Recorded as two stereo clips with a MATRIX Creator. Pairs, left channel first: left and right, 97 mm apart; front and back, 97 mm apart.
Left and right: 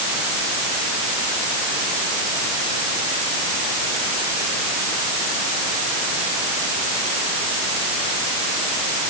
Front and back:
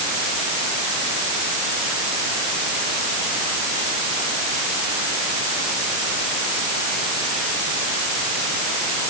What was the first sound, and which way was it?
Only background noise.